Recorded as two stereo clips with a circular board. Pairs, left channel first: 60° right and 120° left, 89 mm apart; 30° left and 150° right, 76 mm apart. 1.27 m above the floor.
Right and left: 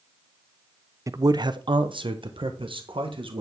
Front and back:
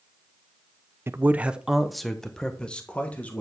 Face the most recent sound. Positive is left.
turn(degrees=100)